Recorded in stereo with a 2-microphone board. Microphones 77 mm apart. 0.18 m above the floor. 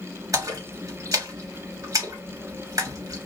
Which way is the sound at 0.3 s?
45° right (ahead or behind).